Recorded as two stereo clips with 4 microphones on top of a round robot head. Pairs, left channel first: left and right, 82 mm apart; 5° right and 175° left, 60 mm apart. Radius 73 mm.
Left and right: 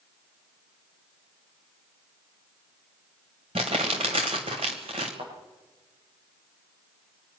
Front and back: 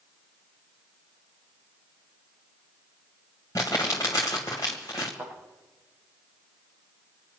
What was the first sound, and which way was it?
Crumpling, 65° right.